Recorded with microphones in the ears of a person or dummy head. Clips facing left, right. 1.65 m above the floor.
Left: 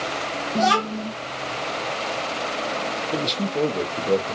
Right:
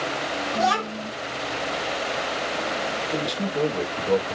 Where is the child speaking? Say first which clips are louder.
Left 4 dB; 30° left (ahead or behind), 0.9 m.